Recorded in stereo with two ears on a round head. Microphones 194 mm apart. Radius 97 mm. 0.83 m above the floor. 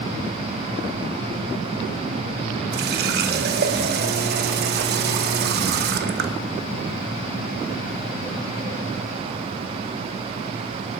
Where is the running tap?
50° right (ahead or behind), 0.8 m.